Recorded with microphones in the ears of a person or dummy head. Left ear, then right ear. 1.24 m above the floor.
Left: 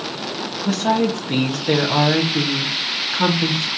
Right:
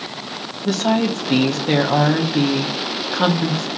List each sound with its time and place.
0.7 s a woman speaking: 10° right (ahead or behind), 0.6 m